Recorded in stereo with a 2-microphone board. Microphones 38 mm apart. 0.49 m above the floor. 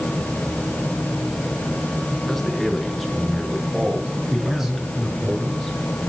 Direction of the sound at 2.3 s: 5° left (ahead or behind).